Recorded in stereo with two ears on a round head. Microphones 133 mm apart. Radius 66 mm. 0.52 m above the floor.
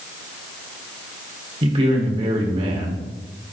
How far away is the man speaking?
About 2.0 m.